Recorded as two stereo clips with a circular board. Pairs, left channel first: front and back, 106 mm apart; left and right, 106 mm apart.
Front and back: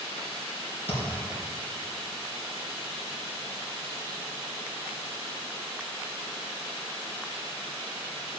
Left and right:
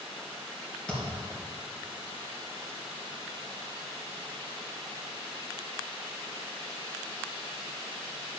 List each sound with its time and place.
0.9 s a thud: 10° left, 3.5 m